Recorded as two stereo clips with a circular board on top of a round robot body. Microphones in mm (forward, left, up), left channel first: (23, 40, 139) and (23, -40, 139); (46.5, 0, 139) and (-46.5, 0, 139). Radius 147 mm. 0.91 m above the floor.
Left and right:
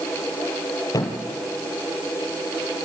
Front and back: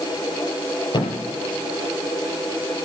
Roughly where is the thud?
Ahead left.